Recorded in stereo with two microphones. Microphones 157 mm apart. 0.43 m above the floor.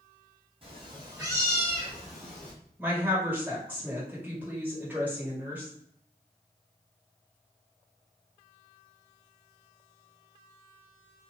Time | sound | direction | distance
0.6 | a cat meowing | 35° right (ahead or behind) | 1.4 m
2.8 | a woman speaking | 10° right (ahead or behind) | 1.5 m